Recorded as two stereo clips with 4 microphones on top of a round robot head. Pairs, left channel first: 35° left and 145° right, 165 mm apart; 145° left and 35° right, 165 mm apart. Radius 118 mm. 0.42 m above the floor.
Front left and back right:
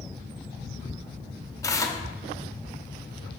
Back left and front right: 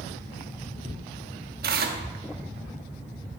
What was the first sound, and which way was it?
Tearing paper, 30° right.